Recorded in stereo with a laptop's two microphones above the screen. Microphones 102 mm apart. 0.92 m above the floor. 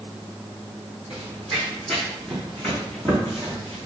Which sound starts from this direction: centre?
Running footsteps, at 1.1 s.